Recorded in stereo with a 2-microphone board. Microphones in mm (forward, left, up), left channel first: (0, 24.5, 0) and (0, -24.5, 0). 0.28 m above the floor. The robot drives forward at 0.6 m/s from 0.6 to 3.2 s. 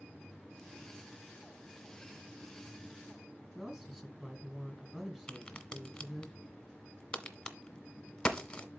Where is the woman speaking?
10° right (ahead or behind), 2.0 m.